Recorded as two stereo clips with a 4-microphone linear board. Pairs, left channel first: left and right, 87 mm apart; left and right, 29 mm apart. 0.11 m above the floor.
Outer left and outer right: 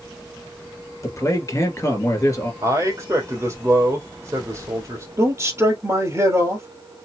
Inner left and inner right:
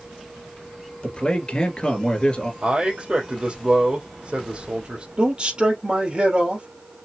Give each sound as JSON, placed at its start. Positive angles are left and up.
{"t": 1.0, "sound": "a man speaking", "side_deg": 35, "distance_m": 2.0}
{"t": 2.6, "sound": "a man speaking", "side_deg": -35, "distance_m": 2.5}
{"t": 5.2, "sound": "a man speaking", "side_deg": -35, "distance_m": 2.5}